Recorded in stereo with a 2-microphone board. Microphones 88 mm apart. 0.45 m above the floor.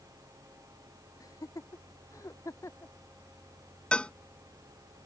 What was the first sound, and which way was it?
Laughter, 40° left (ahead or behind).